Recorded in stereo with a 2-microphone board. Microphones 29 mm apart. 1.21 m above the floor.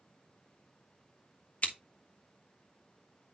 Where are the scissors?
60° left (ahead or behind), 1.1 m.